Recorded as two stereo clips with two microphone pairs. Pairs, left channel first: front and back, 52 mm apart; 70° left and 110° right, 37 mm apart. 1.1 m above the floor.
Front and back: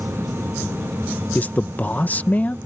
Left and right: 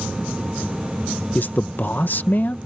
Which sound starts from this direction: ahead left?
A man speaking, at 1.4 s.